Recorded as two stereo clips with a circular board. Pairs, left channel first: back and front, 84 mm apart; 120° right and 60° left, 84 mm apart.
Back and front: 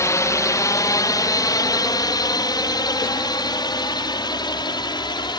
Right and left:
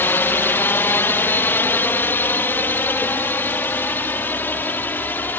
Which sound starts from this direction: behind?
A drone, at 0.0 s.